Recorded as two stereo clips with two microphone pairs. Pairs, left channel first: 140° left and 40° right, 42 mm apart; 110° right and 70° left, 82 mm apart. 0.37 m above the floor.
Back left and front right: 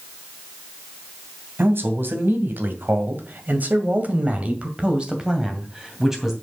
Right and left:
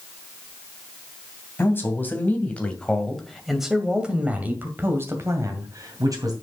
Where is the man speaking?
50° right, 2.5 m; by 6.3 s 40° left, 2.5 m.